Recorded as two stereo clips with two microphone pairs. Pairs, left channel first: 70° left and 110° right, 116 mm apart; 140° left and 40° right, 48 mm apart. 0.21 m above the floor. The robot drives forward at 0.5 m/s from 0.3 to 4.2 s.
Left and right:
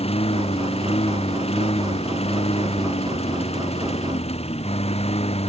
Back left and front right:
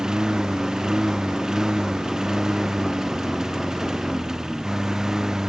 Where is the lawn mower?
35° left; by 5.5 s 40° left.